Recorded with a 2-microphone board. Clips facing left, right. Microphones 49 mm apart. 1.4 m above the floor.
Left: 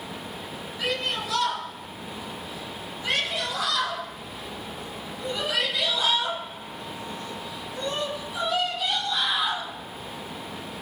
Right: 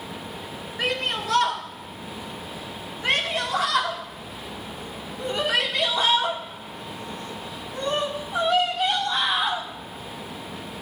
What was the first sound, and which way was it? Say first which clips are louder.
A shout: right 2 dB; 55° right (ahead or behind).